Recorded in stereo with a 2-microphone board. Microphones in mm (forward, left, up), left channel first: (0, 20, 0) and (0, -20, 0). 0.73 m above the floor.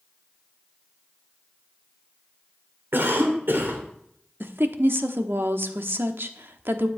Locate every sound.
2.9 s a cough: 65° right (ahead or behind), 2.5 m
4.4 s a woman speaking: 70° right (ahead or behind), 1.1 m